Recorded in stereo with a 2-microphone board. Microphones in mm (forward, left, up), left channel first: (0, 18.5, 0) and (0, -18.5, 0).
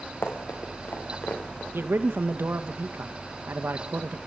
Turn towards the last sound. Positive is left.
turn(degrees=-80)